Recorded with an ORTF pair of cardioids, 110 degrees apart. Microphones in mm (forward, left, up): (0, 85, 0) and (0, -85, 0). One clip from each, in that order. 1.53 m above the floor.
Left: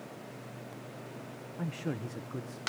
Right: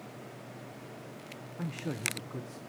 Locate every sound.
1.6 s a man speaking: straight ahead, 0.8 m; by 2.6 s 5° left, 1.5 m